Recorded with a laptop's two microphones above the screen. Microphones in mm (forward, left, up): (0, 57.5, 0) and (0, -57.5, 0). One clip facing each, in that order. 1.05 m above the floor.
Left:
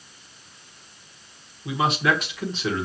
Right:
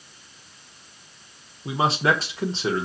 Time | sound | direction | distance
1.6 | a man speaking | 30° right (ahead or behind) | 0.7 m